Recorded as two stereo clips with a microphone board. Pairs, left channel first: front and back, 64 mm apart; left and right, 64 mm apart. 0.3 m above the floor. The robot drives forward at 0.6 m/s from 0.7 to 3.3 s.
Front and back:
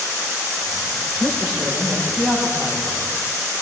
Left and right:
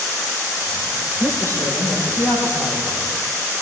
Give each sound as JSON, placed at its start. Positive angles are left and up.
{"t": 1.2, "sound": "a woman speaking", "azimuth_deg": 120, "distance_m": 6.5}